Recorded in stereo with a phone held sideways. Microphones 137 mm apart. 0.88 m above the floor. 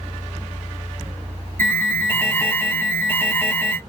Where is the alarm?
20° left (ahead or behind), 1.3 m.